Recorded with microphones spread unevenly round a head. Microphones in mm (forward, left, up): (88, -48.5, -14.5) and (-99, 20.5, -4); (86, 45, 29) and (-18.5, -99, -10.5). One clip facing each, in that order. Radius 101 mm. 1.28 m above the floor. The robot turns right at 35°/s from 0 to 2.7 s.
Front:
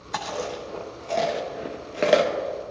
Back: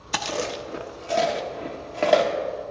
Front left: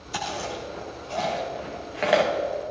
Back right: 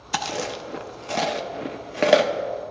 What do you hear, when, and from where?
0.1 s chewing: 155° right, 0.9 m; by 2.3 s 75° right, 0.9 m